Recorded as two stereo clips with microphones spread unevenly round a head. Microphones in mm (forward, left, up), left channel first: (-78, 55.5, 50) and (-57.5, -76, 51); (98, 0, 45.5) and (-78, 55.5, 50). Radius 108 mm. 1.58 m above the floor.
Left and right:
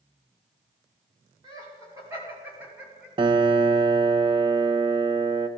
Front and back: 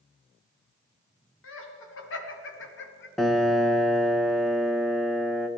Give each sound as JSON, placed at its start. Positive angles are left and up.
{"t": 1.4, "sound": "laughter", "azimuth_deg": -10, "distance_m": 2.5}
{"t": 3.2, "sound": "a piano", "azimuth_deg": -105, "distance_m": 0.6}